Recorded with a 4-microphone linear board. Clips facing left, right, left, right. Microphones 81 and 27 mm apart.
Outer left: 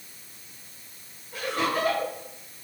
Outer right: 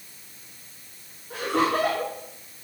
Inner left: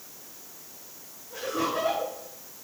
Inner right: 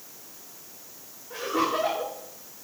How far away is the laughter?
About 8.5 m.